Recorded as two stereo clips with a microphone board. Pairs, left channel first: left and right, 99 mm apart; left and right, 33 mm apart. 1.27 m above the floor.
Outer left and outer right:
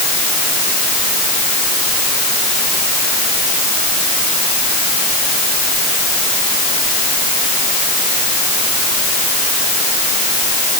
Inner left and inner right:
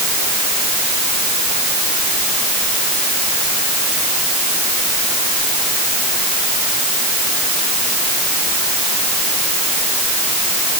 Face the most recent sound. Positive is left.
No sound to turn to.